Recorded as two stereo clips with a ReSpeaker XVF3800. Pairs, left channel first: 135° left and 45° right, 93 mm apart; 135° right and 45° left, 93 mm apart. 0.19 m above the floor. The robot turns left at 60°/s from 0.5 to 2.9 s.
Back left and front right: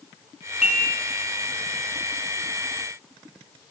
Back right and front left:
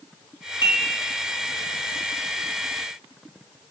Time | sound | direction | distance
0.6 | dishes clattering | 125° right | 1.1 m